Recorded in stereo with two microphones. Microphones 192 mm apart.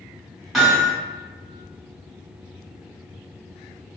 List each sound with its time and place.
0.5 s hammering: centre (ahead or behind), 1.7 m